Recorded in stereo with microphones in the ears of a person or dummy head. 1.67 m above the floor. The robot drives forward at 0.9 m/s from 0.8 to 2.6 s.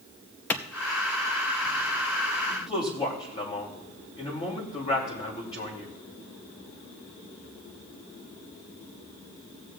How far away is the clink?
I don't hear a clink.